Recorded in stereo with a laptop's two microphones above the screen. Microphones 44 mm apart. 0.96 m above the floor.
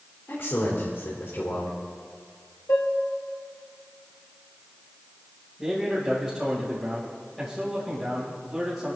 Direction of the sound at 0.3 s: 70° left (ahead or behind).